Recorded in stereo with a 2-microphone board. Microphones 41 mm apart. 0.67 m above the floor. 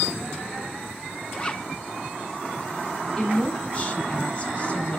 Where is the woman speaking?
25° left (ahead or behind), 4 m.